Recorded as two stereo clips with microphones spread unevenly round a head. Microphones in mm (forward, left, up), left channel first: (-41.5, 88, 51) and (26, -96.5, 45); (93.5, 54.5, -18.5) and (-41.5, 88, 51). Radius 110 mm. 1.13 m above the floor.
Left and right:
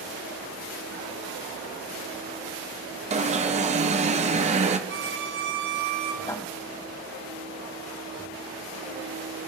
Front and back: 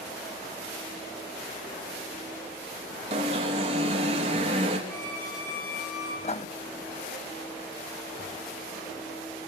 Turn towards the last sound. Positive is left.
turn(degrees=40)